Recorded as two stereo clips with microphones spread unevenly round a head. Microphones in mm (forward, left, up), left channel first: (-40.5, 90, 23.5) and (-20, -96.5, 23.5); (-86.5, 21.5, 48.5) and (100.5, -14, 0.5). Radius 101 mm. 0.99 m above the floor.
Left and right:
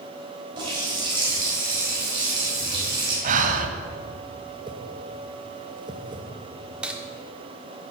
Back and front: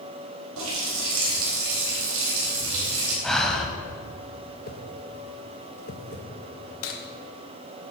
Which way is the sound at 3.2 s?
115° right.